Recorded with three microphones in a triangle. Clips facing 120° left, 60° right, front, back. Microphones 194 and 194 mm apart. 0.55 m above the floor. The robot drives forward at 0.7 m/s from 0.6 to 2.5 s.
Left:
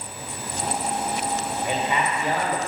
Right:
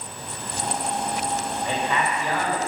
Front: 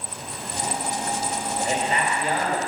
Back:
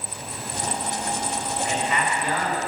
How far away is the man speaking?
About 3 m.